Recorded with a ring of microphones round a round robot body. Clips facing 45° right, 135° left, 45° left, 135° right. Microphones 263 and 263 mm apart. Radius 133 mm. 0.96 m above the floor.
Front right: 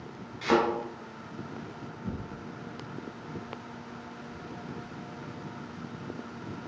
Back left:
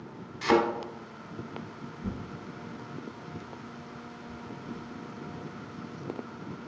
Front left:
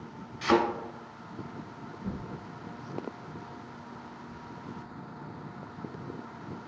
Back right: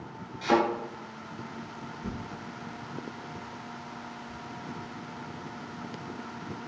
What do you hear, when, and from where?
0.4 s a thud: 100° left, 0.9 m
2.0 s tearing paper: 165° left, 0.6 m